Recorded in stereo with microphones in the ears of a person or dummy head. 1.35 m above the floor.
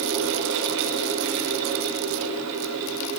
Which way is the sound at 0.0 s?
85° right.